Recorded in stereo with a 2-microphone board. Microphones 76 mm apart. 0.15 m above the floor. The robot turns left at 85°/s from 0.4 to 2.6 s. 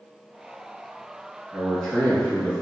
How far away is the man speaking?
About 1.3 m.